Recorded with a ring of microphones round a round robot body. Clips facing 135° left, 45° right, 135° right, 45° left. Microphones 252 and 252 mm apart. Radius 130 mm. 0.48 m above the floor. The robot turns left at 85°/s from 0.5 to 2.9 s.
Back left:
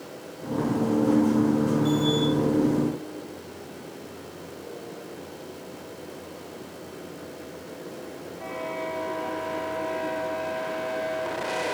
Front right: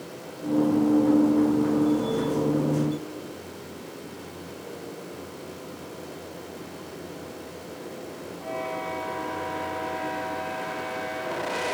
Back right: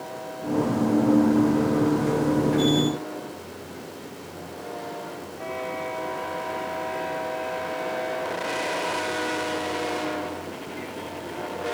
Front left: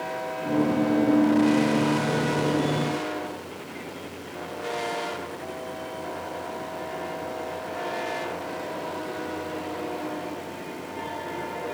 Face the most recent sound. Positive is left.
No sound to turn to.